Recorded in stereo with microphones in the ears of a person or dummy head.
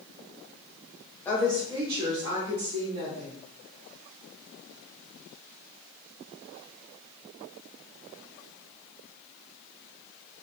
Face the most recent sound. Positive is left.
turn(degrees=-55)  # may be behind; listen again after turning